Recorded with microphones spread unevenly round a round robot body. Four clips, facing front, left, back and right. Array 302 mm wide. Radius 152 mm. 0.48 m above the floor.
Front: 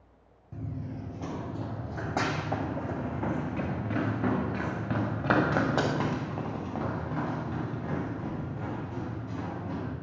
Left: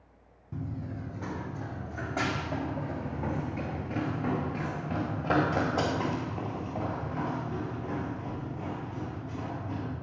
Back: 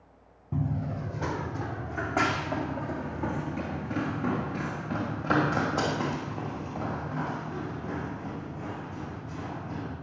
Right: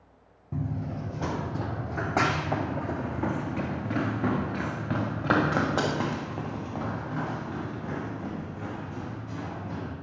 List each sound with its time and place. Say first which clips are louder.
0.5 s running footsteps: right 5 dB, back 7 dB; 150° right, 1.4 m; by 9.9 s 60° right, 6.5 m